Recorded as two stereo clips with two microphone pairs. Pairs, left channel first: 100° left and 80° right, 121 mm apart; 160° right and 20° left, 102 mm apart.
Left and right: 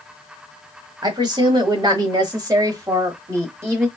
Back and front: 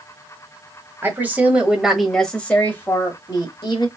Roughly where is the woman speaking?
Ahead right.